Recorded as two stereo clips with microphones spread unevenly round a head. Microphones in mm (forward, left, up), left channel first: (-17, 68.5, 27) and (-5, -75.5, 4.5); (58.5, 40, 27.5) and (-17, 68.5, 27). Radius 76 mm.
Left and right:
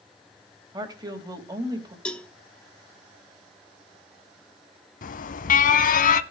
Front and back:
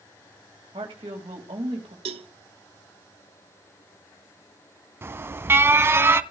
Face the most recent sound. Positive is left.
turn(degrees=105)